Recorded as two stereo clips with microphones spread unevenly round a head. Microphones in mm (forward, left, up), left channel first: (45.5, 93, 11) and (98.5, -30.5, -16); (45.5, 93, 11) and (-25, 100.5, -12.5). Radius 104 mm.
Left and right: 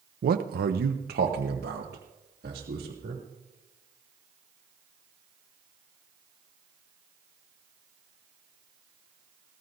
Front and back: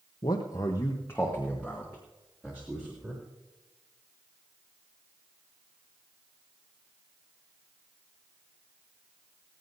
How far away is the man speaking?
About 0.6 m.